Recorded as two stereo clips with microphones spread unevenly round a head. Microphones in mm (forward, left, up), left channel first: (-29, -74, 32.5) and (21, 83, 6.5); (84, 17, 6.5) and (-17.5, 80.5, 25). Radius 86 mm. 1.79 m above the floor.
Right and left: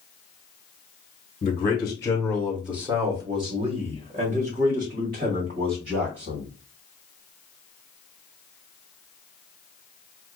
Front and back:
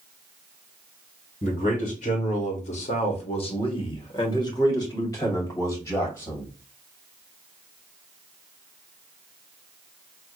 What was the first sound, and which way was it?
A man speaking, 70° right.